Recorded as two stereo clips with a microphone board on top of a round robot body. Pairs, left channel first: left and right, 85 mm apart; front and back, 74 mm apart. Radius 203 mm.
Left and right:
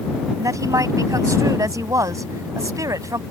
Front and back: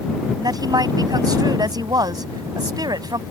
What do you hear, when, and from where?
0.4 s a woman speaking: 145° right